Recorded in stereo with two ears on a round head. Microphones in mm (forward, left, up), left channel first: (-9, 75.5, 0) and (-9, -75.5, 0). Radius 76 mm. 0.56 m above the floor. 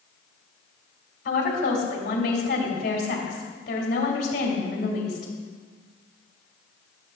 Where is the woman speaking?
65° left (ahead or behind), 3 m.